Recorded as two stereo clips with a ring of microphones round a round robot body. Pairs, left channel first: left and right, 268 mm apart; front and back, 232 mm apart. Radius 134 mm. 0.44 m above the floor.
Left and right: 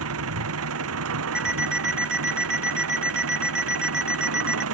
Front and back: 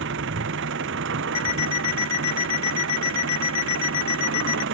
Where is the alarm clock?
5° right.